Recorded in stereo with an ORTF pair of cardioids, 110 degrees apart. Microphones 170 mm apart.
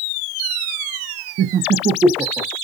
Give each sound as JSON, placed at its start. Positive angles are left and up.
{"t": 1.4, "sound": "laughter", "azimuth_deg": -65, "distance_m": 0.5}